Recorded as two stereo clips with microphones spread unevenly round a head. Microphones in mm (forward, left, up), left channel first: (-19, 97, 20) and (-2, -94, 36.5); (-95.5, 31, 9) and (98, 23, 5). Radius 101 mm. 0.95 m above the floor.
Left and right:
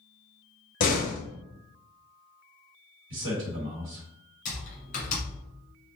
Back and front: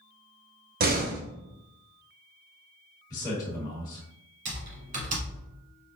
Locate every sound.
0.8 s a door slam: 40° left, 0.9 m
3.1 s a man speaking: 110° right, 1.3 m
4.5 s typing on a keyboard: 45° left, 1.4 m